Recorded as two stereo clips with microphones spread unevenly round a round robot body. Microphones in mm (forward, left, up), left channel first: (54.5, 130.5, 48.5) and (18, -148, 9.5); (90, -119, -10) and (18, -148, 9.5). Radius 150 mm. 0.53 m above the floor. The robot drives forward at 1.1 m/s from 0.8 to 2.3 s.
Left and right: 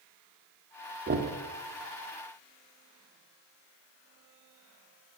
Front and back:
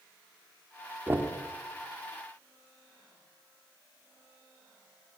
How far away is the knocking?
About 1.2 m.